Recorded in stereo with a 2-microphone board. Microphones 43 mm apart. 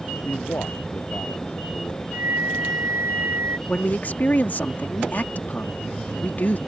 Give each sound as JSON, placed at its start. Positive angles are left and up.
{"t": 0.2, "sound": "a man speaking", "side_deg": 70}
{"t": 2.1, "sound": "a flute", "side_deg": -70}
{"t": 3.7, "sound": "a man speaking", "side_deg": 45}